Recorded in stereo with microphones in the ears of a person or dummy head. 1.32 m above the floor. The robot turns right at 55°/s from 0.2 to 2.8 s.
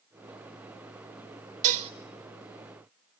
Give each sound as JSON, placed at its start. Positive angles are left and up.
{"t": 1.6, "sound": "dishes clattering", "side_deg": -45, "distance_m": 0.8}